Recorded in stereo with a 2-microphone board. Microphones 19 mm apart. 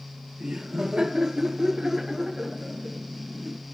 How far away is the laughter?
About 2.0 m.